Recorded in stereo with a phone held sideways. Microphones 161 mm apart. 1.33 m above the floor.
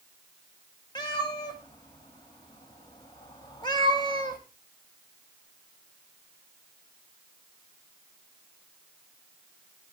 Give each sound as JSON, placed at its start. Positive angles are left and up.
{"t": 0.9, "sound": "a cat meowing", "side_deg": 30, "distance_m": 1.4}